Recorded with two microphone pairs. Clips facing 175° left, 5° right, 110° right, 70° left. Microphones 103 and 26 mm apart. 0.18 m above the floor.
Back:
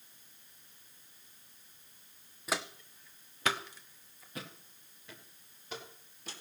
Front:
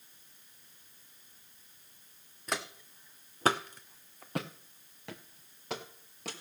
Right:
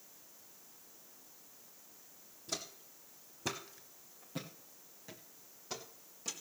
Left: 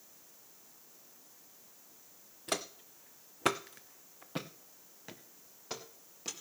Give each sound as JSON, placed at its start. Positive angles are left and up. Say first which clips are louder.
{"t": 2.5, "sound": "footsteps", "louder": "back 1 dB, left 6 dB", "azimuth_deg": 85, "distance_m": 0.8}